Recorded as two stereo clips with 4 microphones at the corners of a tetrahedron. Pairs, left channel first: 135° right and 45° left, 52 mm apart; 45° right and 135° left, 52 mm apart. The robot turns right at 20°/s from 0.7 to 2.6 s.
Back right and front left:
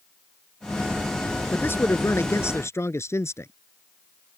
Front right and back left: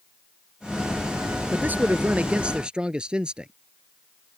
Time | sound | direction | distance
1.5 | a man speaking | 175° right | ?